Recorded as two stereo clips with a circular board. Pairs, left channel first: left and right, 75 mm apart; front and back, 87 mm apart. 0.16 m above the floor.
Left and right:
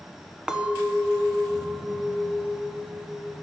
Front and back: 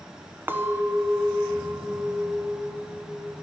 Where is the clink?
155° right, 0.9 m.